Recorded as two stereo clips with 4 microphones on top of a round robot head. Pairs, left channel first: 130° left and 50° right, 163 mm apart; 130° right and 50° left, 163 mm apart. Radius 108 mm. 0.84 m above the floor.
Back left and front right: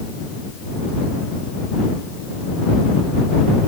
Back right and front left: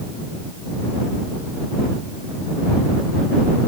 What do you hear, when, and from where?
Only background noise.